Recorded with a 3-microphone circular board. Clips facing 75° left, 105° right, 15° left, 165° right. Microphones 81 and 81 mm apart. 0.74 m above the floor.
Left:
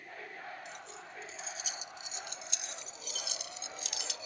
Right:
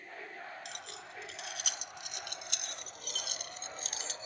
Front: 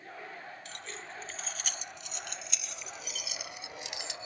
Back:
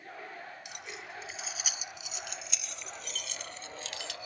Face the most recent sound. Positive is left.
turn(degrees=-50)